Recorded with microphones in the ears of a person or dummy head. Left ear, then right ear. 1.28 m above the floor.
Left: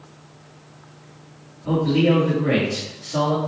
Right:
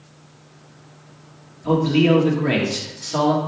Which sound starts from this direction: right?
A man speaking, at 1.6 s.